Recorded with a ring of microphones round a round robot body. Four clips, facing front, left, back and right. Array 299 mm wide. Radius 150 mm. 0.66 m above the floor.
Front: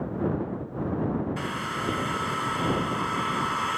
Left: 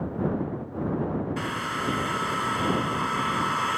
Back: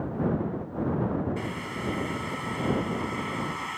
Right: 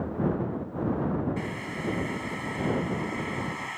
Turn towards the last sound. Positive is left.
turn(degrees=60)